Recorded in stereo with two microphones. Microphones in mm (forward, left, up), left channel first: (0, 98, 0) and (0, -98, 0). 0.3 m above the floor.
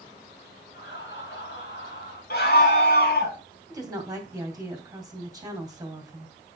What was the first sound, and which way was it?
Laughter, 70° left (ahead or behind).